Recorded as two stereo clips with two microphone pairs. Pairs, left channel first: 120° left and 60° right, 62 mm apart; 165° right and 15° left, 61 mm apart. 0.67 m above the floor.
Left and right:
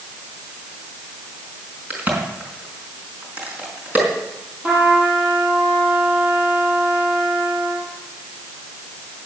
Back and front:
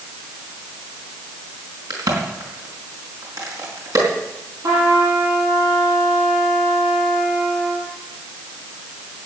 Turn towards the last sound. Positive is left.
turn(degrees=5)